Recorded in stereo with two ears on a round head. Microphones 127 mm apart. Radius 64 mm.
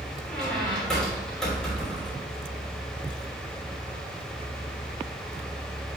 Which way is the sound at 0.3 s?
5° left (ahead or behind).